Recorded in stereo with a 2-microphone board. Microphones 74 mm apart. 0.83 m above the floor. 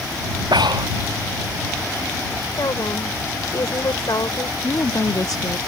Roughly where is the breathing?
Right.